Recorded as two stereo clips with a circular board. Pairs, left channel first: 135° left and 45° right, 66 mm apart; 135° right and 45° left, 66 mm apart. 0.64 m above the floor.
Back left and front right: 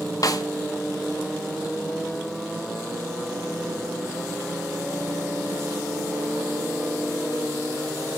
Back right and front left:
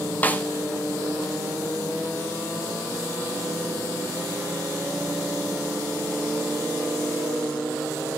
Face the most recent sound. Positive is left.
turn(degrees=160)